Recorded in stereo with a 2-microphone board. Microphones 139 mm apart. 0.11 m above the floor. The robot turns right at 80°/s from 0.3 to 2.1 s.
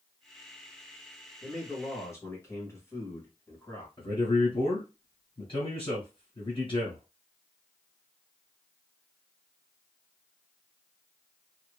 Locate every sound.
1.4 s a man speaking: 5° left (ahead or behind), 1.5 m; by 3.9 s 20° left (ahead or behind), 1.5 m
4.0 s a man speaking: 40° left (ahead or behind), 1.9 m